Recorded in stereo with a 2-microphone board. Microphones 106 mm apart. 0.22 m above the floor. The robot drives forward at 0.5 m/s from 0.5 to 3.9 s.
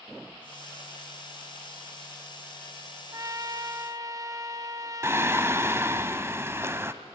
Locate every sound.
3.1 s a trumpet: 35° right (ahead or behind), 0.8 m
5.0 s singing: 25° right (ahead or behind), 0.8 m